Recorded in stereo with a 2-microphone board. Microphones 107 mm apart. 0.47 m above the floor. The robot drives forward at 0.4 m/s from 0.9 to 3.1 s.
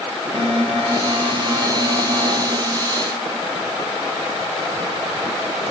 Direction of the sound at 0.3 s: 60° right (ahead or behind).